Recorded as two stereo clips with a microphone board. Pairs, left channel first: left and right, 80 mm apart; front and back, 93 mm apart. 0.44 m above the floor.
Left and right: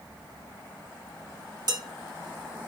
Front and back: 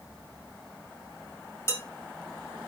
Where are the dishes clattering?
55° right, 1.7 m.